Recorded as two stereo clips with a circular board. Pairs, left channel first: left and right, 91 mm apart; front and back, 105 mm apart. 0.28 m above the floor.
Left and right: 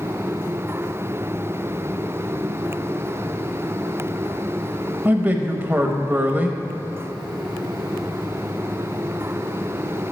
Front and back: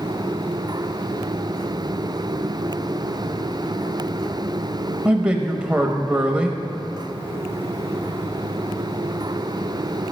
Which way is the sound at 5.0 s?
120° right.